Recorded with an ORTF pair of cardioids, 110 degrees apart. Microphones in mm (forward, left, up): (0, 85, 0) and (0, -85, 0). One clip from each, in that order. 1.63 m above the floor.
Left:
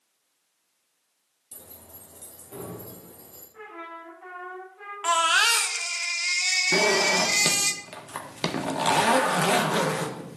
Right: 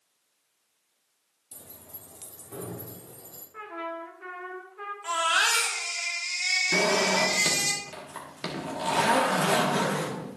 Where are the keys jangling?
Straight ahead, 2.5 m; by 3.4 s 25° right, 4.5 m.